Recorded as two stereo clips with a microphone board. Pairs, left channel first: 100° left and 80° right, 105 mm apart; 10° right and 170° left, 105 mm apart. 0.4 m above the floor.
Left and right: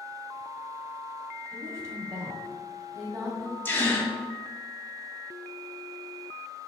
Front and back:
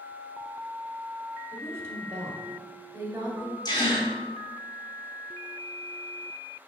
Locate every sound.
1.5 s a woman speaking: 130° right, 1.8 m
3.6 s a gasp: 30° left, 1.8 m